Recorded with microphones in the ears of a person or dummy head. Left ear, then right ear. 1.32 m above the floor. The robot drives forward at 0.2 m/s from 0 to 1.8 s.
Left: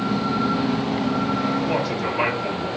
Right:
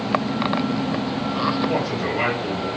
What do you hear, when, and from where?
1.6 s a man speaking: 20° left (ahead or behind), 1.8 m